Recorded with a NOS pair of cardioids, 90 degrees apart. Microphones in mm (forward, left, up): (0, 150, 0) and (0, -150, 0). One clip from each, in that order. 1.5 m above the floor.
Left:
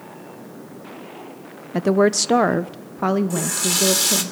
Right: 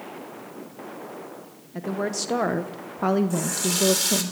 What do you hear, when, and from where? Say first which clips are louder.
1.7 s a woman speaking: left 11 dB; 65° left, 1.0 m; by 4.3 s 5° right, 2 m
3.3 s a running tap: left 4 dB; 30° left, 3.5 m